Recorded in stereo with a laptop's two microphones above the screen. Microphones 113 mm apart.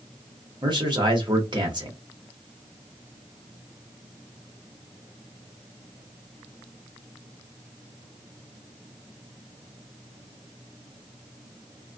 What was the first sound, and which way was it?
A man speaking, 45° right (ahead or behind).